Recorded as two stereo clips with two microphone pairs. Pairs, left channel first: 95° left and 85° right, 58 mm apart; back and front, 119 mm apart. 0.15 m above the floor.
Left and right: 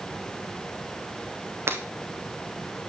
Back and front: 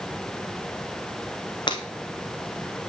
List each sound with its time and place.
1.7 s breaking glass: 130° right, 1.7 m